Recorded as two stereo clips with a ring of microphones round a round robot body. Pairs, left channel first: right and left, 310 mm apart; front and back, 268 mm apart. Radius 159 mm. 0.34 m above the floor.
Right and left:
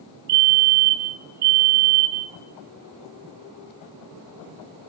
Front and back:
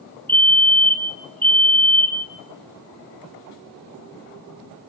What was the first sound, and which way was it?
A fire alarm, 80° left.